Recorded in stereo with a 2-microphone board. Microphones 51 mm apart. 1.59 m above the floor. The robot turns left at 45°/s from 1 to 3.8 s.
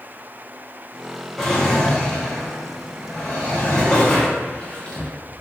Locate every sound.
1.4 s a drawer: 5° left (ahead or behind), 0.6 m; by 5.1 s 15° left (ahead or behind), 0.6 m